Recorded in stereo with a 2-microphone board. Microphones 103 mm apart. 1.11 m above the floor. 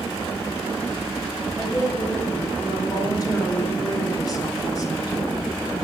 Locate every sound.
1.6 s a woman speaking: 35° left (ahead or behind), 5.5 m